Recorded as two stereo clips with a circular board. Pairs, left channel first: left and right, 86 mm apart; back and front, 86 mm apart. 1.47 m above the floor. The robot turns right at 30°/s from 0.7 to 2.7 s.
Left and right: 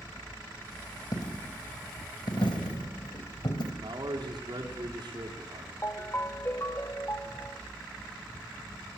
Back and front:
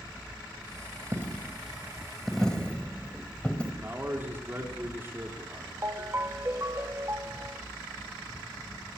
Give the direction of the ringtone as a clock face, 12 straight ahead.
11 o'clock.